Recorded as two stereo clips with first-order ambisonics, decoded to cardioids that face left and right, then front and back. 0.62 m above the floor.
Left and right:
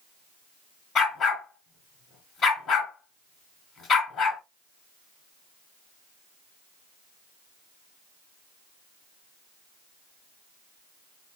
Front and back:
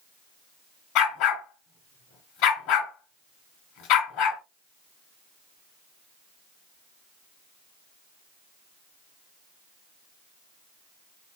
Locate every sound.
0.9 s a dog barking: 25° left, 1.9 m